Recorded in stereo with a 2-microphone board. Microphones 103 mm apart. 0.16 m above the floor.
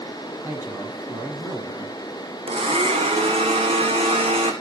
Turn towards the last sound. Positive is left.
turn(degrees=-70)  # may be behind; listen again after turning